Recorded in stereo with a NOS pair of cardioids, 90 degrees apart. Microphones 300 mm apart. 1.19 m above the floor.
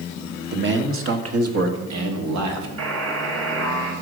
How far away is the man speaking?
About 1.7 m.